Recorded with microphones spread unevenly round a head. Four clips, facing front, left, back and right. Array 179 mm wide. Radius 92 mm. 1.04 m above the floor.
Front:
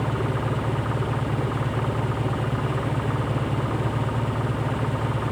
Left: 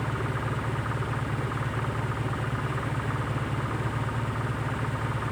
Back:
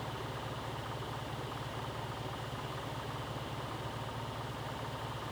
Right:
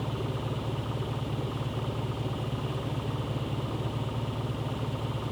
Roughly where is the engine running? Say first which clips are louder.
Left 3 dB, front 15 dB; ahead.